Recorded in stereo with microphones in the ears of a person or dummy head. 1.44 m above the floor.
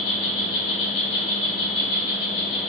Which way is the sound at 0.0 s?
45° left (ahead or behind).